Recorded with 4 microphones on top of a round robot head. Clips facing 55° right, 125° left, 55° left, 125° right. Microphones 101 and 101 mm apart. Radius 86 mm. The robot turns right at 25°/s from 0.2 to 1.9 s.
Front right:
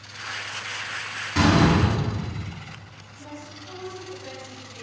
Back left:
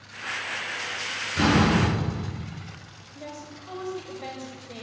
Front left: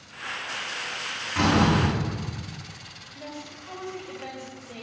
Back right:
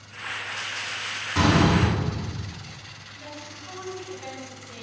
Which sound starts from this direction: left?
A woman speaking, at 3.1 s.